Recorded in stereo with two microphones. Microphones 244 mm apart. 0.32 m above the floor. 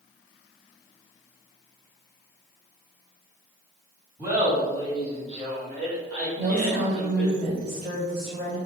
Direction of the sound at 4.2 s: 10° right (ahead or behind).